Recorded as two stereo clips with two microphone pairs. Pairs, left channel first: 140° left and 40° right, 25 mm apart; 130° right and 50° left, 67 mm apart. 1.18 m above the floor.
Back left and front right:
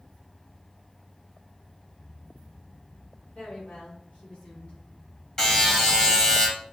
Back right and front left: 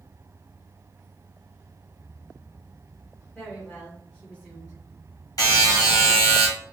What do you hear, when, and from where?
3.4 s a woman speaking: 160° left, 2 m; by 4.8 s straight behind, 2.5 m
5.4 s a buzzer: 155° right, 1.7 m